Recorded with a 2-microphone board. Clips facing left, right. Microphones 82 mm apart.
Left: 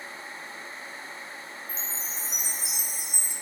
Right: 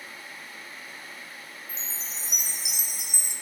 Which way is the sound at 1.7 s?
85° right.